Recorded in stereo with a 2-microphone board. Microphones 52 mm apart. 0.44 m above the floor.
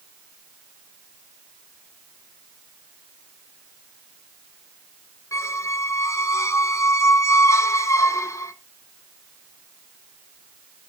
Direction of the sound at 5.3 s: 70° left (ahead or behind).